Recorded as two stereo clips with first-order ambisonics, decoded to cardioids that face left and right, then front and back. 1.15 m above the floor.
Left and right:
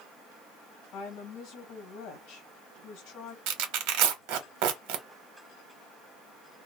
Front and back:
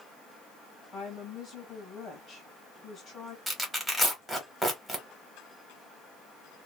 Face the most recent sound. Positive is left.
turn(degrees=-95)